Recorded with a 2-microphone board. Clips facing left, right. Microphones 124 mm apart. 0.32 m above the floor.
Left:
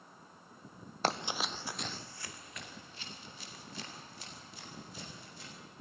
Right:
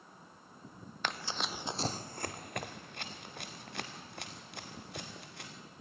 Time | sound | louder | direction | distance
1.0 | running footsteps | left 4 dB | 40° left (ahead or behind) | 0.7 m